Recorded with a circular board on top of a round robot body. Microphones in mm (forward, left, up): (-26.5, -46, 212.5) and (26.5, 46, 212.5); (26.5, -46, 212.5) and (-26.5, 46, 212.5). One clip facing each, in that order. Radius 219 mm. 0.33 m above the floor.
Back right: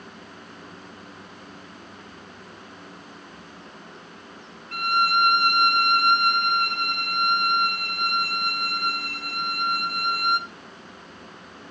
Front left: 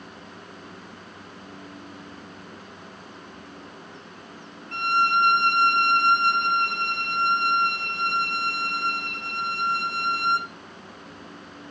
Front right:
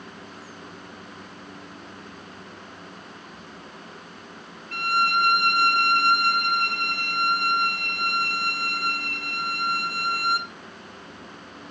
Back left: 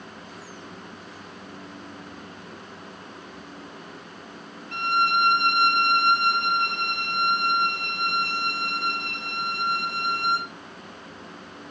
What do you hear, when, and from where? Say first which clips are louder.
4.7 s a violin: even, even; 85° left, 1.4 m